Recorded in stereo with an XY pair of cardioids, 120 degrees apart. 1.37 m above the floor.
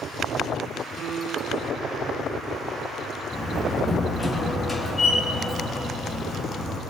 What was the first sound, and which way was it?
A piano, 60° right.